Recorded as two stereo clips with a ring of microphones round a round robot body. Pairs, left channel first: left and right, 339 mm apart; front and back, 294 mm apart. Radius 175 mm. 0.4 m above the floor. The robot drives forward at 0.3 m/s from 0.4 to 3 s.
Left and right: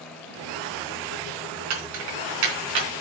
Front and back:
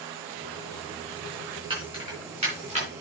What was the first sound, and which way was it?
Keys jangling, 105° right.